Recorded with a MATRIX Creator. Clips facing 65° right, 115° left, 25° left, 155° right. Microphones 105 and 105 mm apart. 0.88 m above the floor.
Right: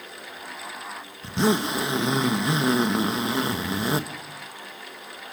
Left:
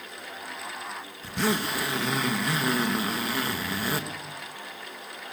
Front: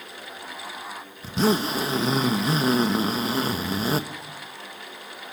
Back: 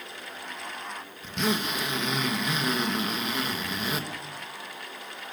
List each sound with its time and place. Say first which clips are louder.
1.2 s a zipper: right 5 dB, front 6 dB; 10° right, 1.1 m